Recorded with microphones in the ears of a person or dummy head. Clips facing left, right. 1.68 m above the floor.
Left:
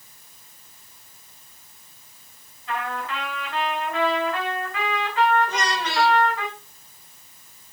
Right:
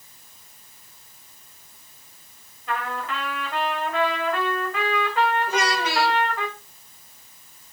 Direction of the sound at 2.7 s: 55° right (ahead or behind).